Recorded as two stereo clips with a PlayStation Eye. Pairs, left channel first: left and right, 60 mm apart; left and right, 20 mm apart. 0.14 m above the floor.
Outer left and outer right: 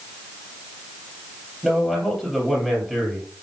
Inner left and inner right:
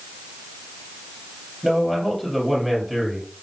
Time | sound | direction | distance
1.6 | a man speaking | 5° right (ahead or behind) | 3 m